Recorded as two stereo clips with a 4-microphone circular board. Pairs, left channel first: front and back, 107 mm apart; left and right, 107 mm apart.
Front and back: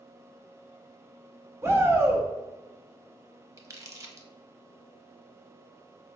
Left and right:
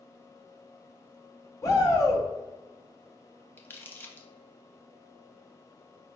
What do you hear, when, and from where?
1.6 s a shout: 130° left, 0.7 m
3.6 s crumpling: 145° left, 0.6 m